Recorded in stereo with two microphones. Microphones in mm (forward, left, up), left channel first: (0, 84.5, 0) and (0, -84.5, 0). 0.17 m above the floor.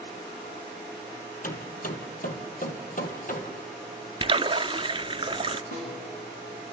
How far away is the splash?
About 0.5 m.